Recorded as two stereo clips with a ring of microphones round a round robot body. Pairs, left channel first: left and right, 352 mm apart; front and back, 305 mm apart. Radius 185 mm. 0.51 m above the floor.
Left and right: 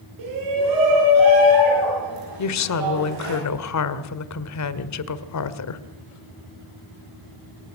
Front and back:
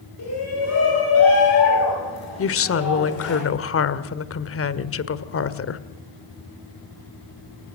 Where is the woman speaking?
45° left, 1.7 m.